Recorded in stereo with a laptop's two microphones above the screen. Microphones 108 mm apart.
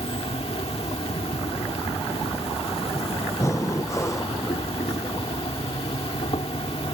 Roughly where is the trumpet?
I don't hear a trumpet.